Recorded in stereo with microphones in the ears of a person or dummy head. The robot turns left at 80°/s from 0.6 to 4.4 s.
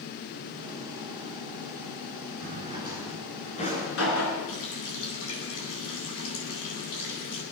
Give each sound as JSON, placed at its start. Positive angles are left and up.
{"t": 2.4, "sound": "a drawer", "side_deg": -50, "distance_m": 8.0}
{"t": 4.5, "sound": "a running tap", "side_deg": 85, "distance_m": 9.0}